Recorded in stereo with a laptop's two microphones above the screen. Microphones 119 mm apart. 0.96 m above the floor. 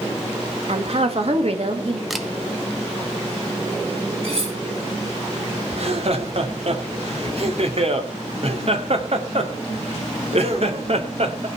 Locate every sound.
0.7 s a woman speaking: 55° right (ahead or behind), 1.8 m
2.1 s a camera shutter: centre (ahead or behind), 1.3 m
4.2 s cutlery clinking: 60° right (ahead or behind), 5 m
5.7 s laughter: 60° right (ahead or behind), 2.5 m